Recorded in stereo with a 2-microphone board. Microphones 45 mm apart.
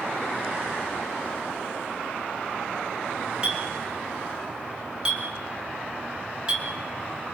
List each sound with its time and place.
3.4 s a clink: 20° right (ahead or behind), 4 m